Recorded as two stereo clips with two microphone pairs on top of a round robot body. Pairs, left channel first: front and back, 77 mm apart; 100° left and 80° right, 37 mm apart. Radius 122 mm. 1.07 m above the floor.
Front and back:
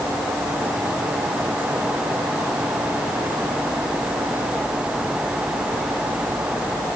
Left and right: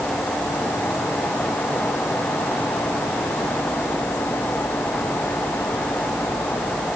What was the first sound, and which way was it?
Only background noise.